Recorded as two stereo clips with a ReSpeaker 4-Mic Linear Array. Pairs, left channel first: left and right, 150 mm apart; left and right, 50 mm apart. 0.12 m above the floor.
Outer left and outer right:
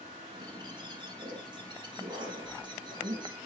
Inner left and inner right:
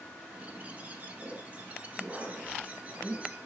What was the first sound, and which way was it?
A bird, 30° right (ahead or behind).